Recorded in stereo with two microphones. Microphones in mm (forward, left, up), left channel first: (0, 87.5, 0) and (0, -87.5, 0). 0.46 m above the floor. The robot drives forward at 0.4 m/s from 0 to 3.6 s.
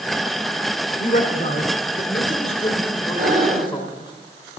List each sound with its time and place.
1.0 s a man speaking: 45° left (ahead or behind), 0.9 m; by 4.1 s 30° left (ahead or behind), 1.4 m
3.2 s breathing: 55° right (ahead or behind), 1.5 m; by 3.8 s 50° right (ahead or behind), 1.5 m